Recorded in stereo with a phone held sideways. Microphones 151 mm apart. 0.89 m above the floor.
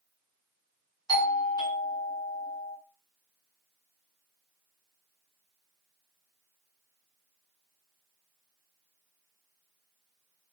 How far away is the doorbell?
About 1.6 m.